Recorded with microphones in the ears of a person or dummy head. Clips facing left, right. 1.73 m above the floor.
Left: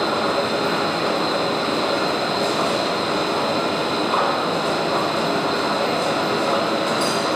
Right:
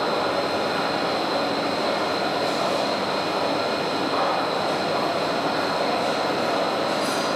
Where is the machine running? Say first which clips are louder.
Left 2 dB; 55° left (ahead or behind), 1.2 m.